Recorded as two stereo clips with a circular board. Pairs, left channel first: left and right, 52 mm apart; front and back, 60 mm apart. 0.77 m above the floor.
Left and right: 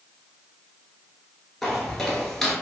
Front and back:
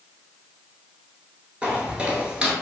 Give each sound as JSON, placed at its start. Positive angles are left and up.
{"t": 1.6, "sound": "footsteps", "azimuth_deg": 160, "distance_m": 0.7}